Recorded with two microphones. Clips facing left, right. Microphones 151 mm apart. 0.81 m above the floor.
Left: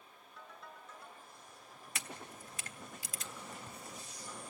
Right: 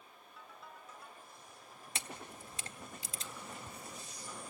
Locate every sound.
0.4 s a ringtone: 5° right (ahead or behind), 4 m
1.9 s a camera shutter: 25° right (ahead or behind), 1.3 m